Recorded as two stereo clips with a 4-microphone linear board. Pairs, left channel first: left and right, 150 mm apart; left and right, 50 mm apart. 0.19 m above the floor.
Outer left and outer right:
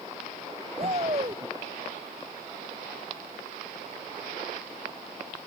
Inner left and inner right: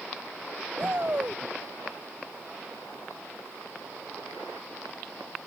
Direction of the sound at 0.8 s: 40° right (ahead or behind).